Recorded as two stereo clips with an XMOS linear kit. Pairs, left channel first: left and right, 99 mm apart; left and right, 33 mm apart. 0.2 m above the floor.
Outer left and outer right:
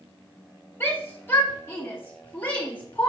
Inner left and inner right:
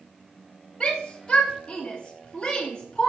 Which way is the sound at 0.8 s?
25° left (ahead or behind).